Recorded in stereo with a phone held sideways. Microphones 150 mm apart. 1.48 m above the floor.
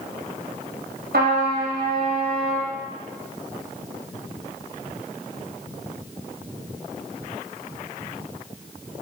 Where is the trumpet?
80° right, 1.1 m.